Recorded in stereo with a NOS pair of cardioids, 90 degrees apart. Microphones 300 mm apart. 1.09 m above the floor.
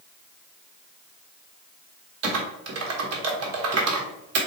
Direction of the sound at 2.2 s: 60° right.